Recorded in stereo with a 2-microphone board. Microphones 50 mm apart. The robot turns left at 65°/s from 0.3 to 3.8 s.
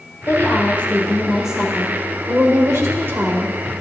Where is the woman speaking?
65° left, 2.0 m; by 3.8 s 165° right, 2.0 m.